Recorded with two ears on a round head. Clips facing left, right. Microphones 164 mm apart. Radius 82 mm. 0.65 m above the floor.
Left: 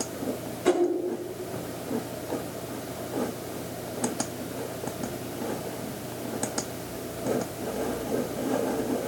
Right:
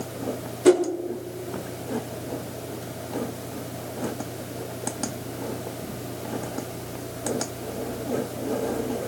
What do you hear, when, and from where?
0.7 s a whoosh: 50° right (ahead or behind), 1.4 m